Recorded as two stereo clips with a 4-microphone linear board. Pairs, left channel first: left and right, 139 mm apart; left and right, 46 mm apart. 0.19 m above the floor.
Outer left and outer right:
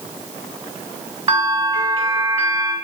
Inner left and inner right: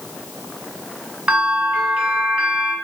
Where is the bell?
25° right (ahead or behind), 1.1 m.